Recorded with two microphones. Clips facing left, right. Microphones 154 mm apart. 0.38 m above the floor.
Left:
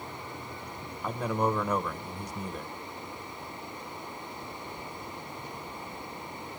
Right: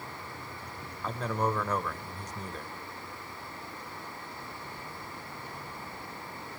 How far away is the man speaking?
About 1.2 m.